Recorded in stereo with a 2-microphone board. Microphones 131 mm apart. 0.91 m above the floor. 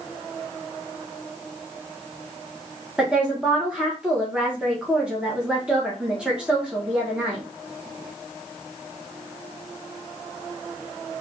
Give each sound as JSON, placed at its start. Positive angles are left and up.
{"t": 3.0, "sound": "a woman speaking", "side_deg": -5, "distance_m": 0.9}